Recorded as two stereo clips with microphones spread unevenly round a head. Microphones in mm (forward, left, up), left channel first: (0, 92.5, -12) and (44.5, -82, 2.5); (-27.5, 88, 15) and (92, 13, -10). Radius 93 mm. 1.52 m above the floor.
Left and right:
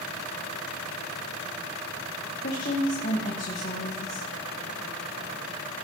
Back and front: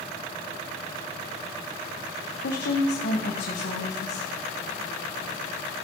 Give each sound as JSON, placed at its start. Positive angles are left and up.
{"t": 2.4, "sound": "a woman speaking", "azimuth_deg": 155, "distance_m": 1.5}